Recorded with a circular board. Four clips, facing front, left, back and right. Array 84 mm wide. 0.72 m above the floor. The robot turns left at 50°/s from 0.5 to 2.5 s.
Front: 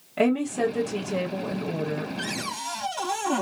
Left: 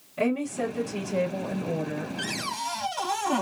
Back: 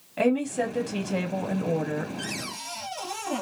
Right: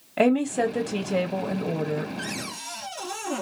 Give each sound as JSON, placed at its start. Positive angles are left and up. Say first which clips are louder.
{"t": 0.2, "sound": "a woman speaking", "louder": "right 6 dB, front 1 dB", "azimuth_deg": -85, "distance_m": 1.5}
{"t": 2.2, "sound": "a cupboard door", "louder": "left 3 dB, front 4 dB", "azimuth_deg": 65, "distance_m": 1.8}